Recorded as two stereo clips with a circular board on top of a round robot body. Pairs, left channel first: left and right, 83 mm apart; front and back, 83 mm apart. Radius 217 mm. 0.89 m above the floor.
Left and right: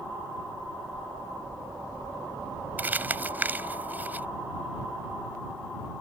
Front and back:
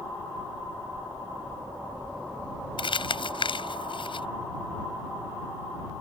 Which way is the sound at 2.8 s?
20° right.